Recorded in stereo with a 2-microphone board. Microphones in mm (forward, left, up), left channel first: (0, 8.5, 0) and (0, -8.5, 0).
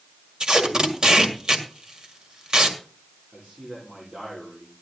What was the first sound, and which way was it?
Tape being pulled, 45° right (ahead or behind).